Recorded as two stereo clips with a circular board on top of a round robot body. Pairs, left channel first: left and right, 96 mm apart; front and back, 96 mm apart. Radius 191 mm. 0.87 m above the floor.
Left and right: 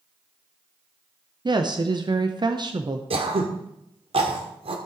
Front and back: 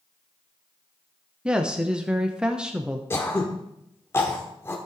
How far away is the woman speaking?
About 1.1 m.